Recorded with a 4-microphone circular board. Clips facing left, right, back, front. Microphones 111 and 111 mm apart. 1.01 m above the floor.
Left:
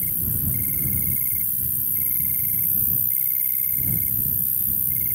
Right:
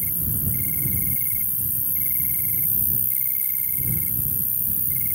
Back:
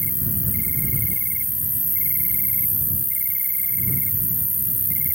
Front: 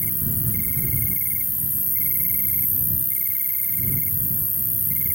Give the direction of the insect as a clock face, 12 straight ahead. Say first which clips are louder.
Even, even; 3 o'clock.